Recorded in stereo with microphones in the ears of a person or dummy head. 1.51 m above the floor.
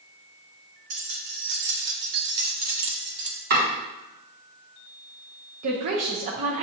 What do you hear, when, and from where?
0.9 s keys jangling: 50° right (ahead or behind), 1.0 m; by 3.4 s 20° right (ahead or behind), 0.8 m
3.5 s chopping: 45° right (ahead or behind), 2 m
5.6 s a woman speaking: 40° right (ahead or behind), 0.6 m